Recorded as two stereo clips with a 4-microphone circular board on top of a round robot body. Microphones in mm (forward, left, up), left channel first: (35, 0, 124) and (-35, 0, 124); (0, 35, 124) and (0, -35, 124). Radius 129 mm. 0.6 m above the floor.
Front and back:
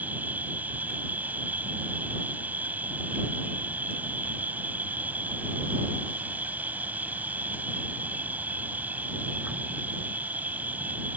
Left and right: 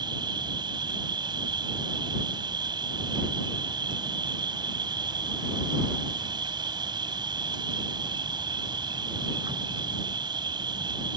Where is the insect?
110° right.